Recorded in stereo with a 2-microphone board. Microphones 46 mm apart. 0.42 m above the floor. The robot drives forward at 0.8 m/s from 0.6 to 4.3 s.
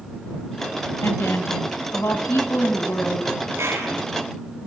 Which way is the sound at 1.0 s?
65° left (ahead or behind).